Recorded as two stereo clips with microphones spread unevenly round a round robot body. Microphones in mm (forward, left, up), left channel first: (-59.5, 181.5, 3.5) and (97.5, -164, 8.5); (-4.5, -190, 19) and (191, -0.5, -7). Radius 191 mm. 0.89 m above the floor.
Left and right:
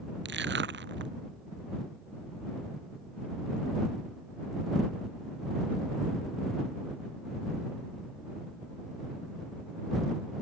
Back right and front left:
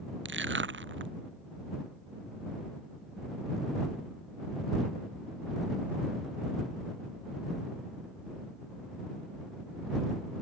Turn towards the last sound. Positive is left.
turn(degrees=-5)